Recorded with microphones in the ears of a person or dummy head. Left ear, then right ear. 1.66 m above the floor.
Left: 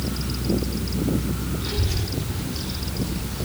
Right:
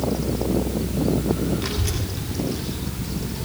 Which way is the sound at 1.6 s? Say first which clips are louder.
Right 1 dB; 50° right (ahead or behind).